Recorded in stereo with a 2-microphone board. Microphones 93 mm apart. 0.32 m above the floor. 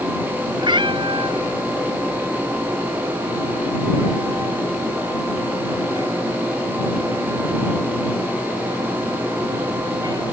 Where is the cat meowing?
60° right (ahead or behind); by 10.2 s 45° right (ahead or behind).